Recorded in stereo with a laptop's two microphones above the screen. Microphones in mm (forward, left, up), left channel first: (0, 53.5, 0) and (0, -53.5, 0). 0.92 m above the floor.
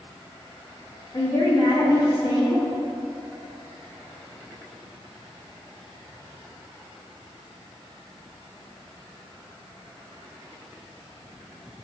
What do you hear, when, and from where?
1.1 s a woman speaking: 40° left (ahead or behind), 1.0 m